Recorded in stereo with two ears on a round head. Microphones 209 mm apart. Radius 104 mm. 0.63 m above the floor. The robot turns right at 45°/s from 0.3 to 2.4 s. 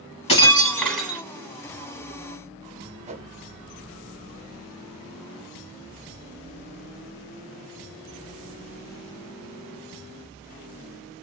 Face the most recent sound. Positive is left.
turn(degrees=-30)  # may be behind; listen again after turning